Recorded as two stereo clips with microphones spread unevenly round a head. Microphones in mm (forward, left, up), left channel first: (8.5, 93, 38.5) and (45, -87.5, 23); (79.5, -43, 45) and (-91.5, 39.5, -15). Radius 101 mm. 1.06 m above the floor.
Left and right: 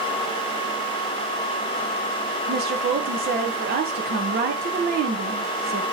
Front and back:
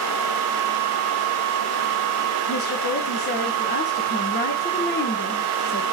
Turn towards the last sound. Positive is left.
turn(degrees=-70)